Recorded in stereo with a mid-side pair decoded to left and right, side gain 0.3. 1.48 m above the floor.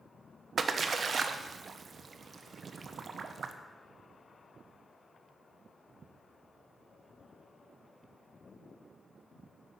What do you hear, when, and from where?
0.6 s a splash: 60° right, 1.1 m